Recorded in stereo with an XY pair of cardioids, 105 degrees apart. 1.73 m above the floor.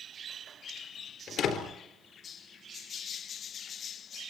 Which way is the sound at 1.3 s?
65° left.